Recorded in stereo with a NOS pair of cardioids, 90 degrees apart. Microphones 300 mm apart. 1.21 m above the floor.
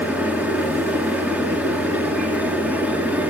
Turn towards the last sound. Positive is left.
turn(degrees=-5)